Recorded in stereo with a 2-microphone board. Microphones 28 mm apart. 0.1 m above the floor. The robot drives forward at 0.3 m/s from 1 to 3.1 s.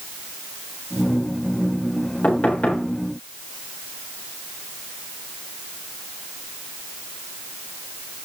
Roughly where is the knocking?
Left.